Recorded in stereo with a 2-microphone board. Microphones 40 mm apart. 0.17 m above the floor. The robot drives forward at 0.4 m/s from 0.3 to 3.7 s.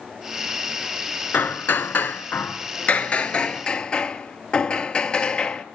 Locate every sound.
1.3 s hammering: 55° left (ahead or behind), 0.5 m; by 5.7 s 30° left (ahead or behind), 0.9 m